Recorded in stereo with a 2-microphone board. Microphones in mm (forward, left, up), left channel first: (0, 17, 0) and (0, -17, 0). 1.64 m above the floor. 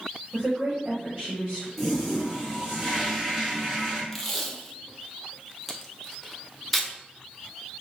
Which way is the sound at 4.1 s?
5° left (ahead or behind).